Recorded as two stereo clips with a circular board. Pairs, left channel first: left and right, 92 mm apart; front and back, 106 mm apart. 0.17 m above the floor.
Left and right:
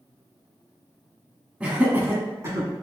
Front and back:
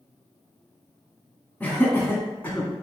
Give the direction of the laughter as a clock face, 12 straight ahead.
1 o'clock.